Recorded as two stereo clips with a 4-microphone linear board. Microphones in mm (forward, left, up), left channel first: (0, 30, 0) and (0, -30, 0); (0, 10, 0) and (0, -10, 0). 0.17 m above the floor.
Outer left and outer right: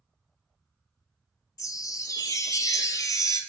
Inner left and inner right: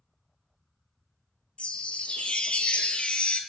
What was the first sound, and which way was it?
A chime, 75° left (ahead or behind).